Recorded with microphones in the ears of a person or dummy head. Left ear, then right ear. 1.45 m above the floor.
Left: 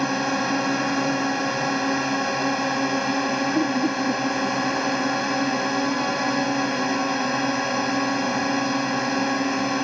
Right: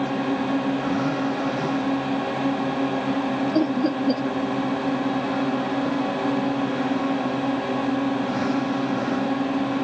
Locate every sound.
0.0 s a drone: 70° left (ahead or behind)
3.5 s laughter: 65° right (ahead or behind)